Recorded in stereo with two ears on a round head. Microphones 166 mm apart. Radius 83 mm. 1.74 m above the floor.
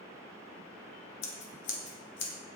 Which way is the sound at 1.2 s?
70° left (ahead or behind).